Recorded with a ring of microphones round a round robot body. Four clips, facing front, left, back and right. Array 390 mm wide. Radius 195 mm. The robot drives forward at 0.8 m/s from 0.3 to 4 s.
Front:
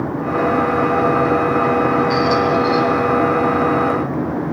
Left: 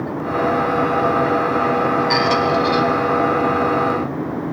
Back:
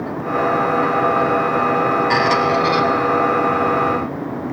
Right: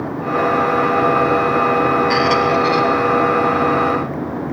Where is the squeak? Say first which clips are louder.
Right 2 dB, front 1 dB; 165° left, 1.2 m; by 2.8 s 170° left, 1.8 m.